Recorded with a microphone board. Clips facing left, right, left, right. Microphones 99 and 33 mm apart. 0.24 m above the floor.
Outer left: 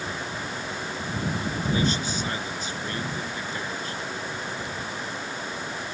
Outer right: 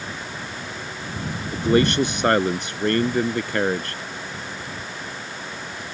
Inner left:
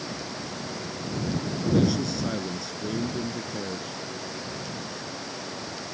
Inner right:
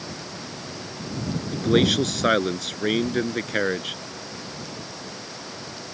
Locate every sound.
1.5 s a man speaking: 70° right (ahead or behind)